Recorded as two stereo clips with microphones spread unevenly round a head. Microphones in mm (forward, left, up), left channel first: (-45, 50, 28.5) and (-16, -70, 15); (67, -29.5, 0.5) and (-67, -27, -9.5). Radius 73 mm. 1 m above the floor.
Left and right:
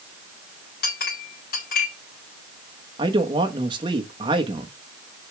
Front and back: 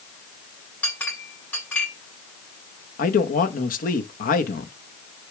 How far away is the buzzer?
No buzzer in this recording.